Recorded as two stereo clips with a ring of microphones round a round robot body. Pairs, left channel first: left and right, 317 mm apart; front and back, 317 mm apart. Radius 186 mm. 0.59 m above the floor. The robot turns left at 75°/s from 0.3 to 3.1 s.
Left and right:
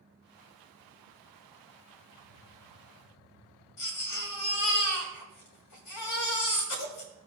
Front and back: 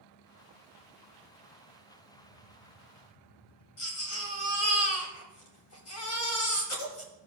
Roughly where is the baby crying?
Ahead left.